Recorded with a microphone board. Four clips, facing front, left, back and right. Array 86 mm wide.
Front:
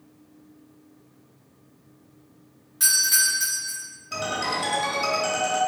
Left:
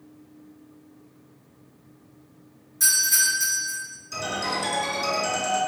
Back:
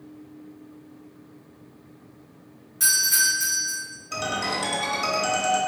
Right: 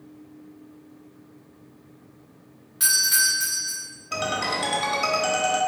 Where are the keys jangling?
I don't hear keys jangling.